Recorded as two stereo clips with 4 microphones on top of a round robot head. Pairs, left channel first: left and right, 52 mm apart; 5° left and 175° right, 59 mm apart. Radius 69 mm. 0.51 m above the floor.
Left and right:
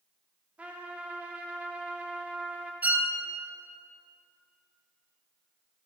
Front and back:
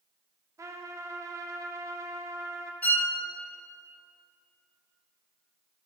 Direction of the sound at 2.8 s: 45° right.